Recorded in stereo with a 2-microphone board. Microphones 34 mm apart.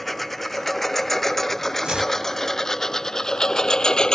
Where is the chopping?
30° right (ahead or behind).